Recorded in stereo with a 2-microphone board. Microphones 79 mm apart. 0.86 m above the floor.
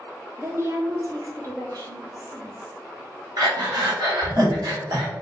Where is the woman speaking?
30° right (ahead or behind), 0.6 m; by 2.8 s 55° right (ahead or behind), 2 m.